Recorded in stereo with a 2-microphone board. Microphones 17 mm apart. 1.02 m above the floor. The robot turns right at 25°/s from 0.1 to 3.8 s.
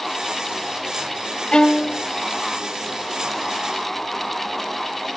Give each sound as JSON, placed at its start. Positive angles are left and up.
{"t": 1.5, "sound": "a violin", "side_deg": 75}